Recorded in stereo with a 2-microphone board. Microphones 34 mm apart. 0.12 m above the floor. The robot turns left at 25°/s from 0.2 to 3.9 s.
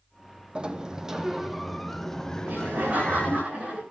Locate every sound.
0.6 s a sliding door: 150° right, 1.2 m; by 3.4 s 140° left, 1.2 m
2.4 s laughter: 110° right, 9.5 m; by 3.8 s 145° right, 9.5 m